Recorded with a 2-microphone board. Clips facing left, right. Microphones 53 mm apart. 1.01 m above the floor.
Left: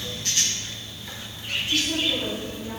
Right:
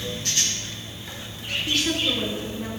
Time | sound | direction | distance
1.7 | a woman speaking | 80° right | 10 m